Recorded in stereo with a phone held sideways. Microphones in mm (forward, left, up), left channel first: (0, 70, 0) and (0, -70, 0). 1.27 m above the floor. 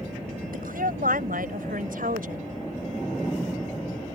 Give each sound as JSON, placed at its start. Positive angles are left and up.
{"t": 0.5, "sound": "a woman speaking", "side_deg": -90}